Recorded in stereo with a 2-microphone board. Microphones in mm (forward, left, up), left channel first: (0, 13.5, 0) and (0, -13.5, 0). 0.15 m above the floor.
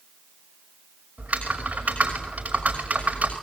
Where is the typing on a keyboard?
50° right (ahead or behind), 6 m.